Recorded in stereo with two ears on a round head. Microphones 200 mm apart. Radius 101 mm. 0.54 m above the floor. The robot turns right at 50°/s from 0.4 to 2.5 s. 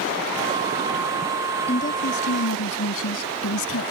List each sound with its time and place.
1.7 s a woman speaking: 30° left; by 3.9 s 70° left